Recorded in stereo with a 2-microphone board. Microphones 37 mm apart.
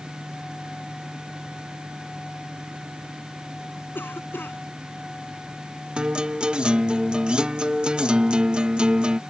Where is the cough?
80° left.